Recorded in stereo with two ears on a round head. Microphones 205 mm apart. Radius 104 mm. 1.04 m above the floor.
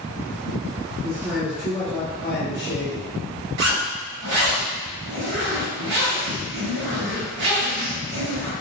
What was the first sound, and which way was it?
A man speaking, 10° right (ahead or behind).